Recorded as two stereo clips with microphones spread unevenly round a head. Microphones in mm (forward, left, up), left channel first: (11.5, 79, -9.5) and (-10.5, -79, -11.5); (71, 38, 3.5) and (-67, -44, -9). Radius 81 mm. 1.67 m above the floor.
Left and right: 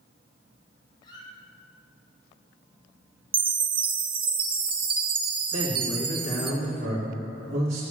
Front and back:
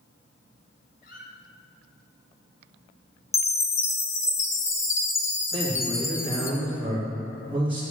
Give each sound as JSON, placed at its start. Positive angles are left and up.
{"t": 1.0, "sound": "a squeak", "azimuth_deg": 25, "distance_m": 2.5}
{"t": 3.3, "sound": "a chime", "azimuth_deg": -40, "distance_m": 1.1}
{"t": 5.5, "sound": "a man speaking", "azimuth_deg": -70, "distance_m": 3.0}